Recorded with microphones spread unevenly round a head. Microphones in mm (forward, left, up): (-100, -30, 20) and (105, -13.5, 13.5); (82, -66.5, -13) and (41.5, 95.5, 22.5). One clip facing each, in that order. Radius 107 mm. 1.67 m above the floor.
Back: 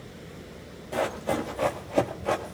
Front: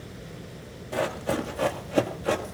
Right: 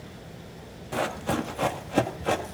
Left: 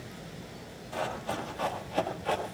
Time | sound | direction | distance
0.9 | running footsteps | 85° right | 2.5 m